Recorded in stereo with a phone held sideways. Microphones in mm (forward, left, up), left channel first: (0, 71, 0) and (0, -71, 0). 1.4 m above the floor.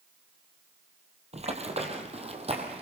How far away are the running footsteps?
About 2.5 m.